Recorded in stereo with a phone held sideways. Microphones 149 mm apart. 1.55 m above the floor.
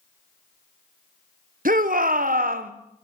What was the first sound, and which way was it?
A shout, 75° right (ahead or behind).